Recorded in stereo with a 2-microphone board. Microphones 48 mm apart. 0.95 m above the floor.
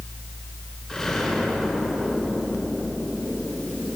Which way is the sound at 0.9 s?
10° left (ahead or behind).